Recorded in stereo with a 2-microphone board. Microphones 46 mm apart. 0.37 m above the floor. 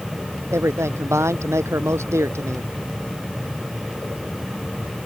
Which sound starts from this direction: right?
A man speaking, at 0.5 s.